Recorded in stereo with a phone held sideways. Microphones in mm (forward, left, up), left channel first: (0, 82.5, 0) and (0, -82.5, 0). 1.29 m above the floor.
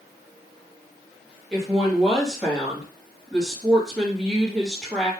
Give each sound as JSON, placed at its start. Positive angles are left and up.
{"t": 1.5, "sound": "a woman speaking", "side_deg": 0, "distance_m": 1.5}